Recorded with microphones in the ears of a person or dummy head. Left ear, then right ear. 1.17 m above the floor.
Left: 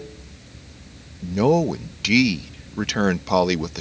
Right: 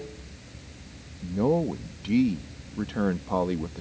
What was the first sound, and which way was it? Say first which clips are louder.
Running water: left 1 dB; 5° right (ahead or behind).